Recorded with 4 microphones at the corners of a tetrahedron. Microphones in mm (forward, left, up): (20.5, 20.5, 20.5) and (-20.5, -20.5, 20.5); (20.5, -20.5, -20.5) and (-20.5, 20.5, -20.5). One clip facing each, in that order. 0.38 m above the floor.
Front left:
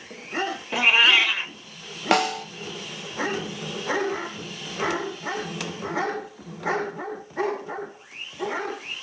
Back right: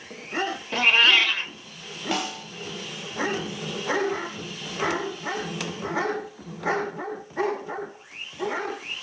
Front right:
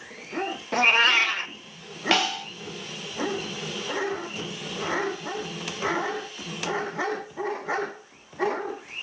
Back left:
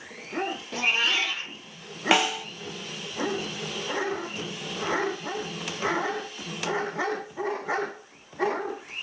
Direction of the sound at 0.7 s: 35° right.